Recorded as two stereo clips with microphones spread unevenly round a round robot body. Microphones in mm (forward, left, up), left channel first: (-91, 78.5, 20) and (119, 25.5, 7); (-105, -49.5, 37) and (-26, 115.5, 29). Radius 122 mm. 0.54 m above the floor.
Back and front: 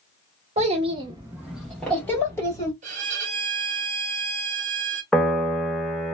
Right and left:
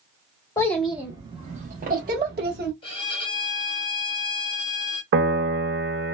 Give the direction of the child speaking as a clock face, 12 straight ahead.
2 o'clock.